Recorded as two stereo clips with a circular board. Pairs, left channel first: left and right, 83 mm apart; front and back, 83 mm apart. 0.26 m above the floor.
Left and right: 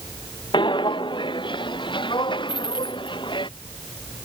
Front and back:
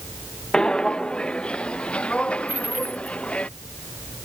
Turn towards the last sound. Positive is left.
turn(degrees=105)